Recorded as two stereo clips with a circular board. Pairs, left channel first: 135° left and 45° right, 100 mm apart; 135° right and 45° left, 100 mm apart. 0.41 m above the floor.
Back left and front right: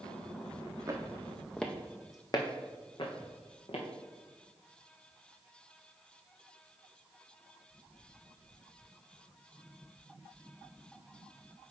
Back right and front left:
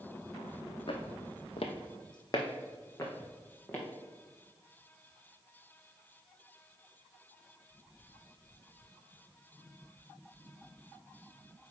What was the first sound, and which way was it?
Footsteps, 100° right.